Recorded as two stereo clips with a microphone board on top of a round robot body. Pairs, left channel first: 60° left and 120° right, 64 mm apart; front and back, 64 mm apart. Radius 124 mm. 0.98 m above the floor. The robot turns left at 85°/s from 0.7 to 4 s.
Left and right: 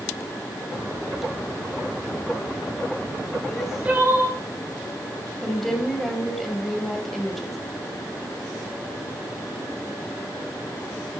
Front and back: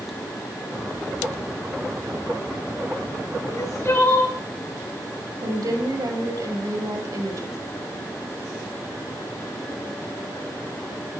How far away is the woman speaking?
About 5 m.